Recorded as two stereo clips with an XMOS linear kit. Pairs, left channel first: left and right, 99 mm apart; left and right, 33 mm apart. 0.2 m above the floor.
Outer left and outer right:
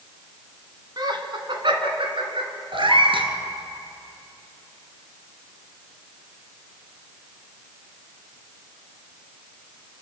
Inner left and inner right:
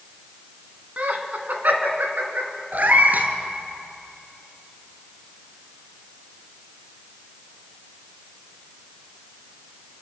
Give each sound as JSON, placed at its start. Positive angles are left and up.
{"t": 1.0, "sound": "laughter", "side_deg": -45, "distance_m": 1.7}
{"t": 2.7, "sound": "a cat meowing", "side_deg": -60, "distance_m": 1.6}